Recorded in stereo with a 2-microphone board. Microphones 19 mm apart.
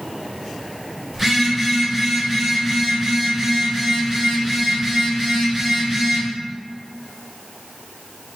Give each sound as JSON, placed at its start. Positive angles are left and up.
{"t": 1.1, "sound": "a phone buzzing", "side_deg": -5, "distance_m": 1.5}